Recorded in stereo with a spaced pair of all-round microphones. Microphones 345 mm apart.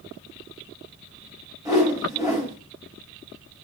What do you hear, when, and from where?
1.6 s a whoosh: 10° right (ahead or behind), 6 m